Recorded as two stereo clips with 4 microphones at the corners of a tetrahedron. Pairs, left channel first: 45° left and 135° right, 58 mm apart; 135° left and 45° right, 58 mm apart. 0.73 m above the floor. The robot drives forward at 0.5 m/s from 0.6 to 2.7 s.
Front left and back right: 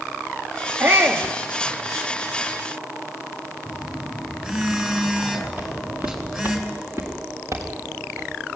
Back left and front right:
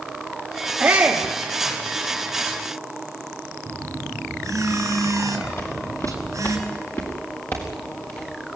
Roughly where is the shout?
Right.